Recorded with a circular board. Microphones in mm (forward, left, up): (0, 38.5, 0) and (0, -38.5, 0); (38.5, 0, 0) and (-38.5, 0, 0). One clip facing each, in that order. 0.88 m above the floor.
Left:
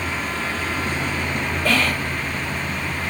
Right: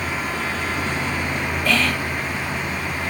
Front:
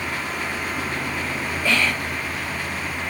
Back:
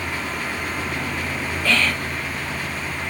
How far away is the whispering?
About 1.8 m.